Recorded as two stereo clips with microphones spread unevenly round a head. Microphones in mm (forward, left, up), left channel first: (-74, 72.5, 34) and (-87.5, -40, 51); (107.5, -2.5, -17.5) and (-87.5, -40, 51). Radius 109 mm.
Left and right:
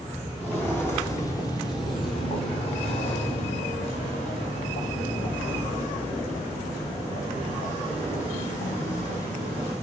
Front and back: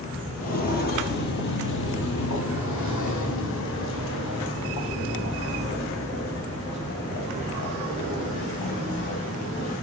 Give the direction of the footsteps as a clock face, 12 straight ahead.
1 o'clock.